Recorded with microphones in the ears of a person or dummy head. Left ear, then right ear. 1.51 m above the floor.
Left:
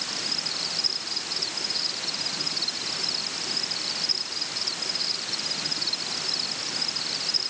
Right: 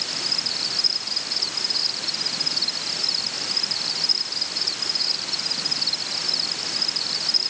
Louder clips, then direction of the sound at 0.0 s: Right 4 dB; 30° left (ahead or behind).